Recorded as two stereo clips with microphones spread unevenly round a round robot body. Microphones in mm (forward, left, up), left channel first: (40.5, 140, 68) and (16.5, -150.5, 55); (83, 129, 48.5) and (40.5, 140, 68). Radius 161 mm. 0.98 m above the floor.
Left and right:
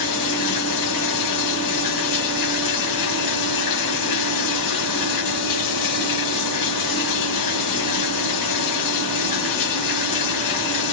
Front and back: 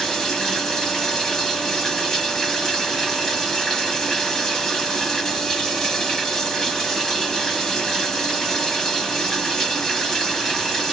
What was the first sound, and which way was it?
Running water, 70° left.